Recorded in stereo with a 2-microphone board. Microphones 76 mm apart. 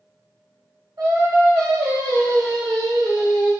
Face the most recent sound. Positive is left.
turn(degrees=-65)  # may be behind; listen again after turning